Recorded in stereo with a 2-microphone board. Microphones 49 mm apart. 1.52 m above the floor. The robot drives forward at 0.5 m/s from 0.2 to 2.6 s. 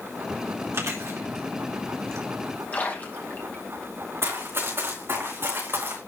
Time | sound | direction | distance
0.7 | chewing | 70° right (ahead or behind) | 2.5 m
2.7 | a splash | 35° left (ahead or behind) | 2 m
4.2 | running footsteps | 60° right (ahead or behind) | 5 m